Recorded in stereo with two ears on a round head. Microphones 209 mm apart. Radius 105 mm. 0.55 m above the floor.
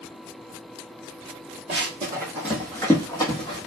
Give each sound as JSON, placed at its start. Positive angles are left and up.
{"t": 1.7, "sound": "running footsteps", "side_deg": -25, "distance_m": 1.1}